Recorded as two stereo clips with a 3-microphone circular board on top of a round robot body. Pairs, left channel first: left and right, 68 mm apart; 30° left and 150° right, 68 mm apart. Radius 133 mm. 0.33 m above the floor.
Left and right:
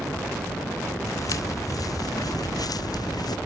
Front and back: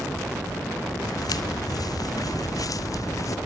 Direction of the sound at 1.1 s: 55° left.